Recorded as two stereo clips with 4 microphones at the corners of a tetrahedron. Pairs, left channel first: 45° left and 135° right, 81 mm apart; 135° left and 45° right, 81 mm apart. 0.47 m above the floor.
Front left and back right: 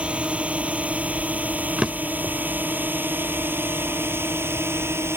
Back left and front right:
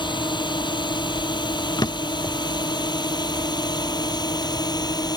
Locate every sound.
0.0 s a drone: 150° left; by 5.2 s 165° left
1.8 s a drawer: 145° left